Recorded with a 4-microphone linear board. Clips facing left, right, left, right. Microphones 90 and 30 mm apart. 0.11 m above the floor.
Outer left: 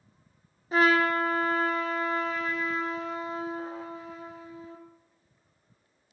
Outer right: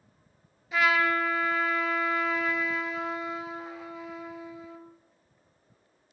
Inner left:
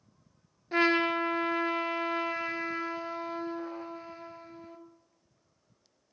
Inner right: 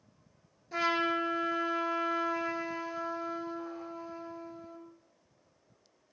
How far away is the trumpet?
About 0.5 m.